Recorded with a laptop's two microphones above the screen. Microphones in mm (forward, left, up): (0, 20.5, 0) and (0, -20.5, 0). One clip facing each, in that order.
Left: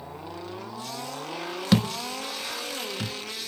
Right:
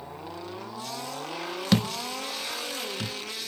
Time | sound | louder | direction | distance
1.7 | a thud | left 2 dB | centre (ahead or behind) | 0.8 m